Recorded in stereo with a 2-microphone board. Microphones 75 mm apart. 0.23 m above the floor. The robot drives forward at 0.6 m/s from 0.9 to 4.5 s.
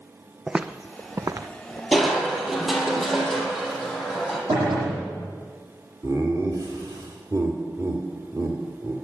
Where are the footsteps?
5° right (ahead or behind), 0.6 m; by 1.8 s 50° right (ahead or behind), 0.8 m.